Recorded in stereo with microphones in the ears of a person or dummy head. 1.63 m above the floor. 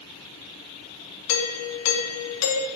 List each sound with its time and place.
1.3 s a doorbell: 85° left, 1.1 m